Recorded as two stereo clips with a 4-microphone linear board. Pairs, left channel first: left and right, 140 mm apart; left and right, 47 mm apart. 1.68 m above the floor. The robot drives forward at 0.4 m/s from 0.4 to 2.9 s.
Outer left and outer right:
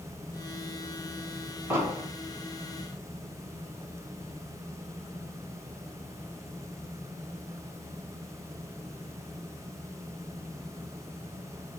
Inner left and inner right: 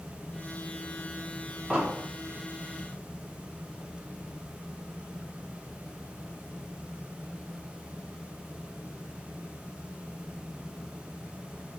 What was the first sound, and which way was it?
An explosion, 20° right (ahead or behind).